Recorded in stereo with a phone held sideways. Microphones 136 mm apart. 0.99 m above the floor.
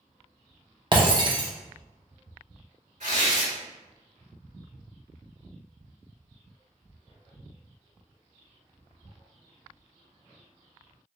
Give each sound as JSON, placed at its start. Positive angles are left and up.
{"t": 0.9, "sound": "breaking glass", "side_deg": -35, "distance_m": 0.6}
{"t": 3.0, "sound": "tearing paper", "side_deg": -65, "distance_m": 1.9}